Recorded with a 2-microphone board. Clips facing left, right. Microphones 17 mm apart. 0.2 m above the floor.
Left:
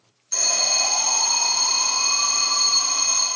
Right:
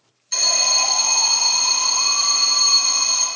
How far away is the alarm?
About 1.4 m.